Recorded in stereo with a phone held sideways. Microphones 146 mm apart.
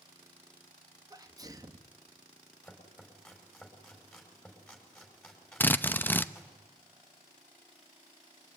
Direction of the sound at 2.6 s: 5° left (ahead or behind).